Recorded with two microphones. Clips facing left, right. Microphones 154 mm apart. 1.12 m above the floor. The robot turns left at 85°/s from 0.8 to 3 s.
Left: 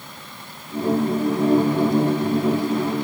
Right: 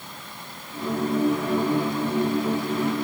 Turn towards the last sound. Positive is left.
No sound to turn to.